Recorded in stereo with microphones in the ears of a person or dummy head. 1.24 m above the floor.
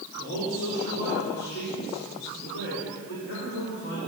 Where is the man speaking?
70° left (ahead or behind), 3.5 m.